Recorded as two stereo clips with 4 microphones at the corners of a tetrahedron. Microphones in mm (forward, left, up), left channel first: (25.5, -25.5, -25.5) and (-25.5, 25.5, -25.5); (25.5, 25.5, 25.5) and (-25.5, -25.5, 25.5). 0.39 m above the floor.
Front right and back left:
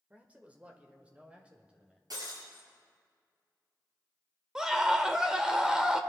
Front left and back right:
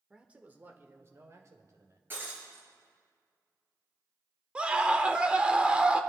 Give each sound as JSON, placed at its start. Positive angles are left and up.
{"t": 0.1, "sound": "a man speaking", "azimuth_deg": 165, "distance_m": 1.2}
{"t": 2.1, "sound": "breaking glass", "azimuth_deg": 165, "distance_m": 4.0}
{"t": 4.5, "sound": "a scream", "azimuth_deg": -170, "distance_m": 1.0}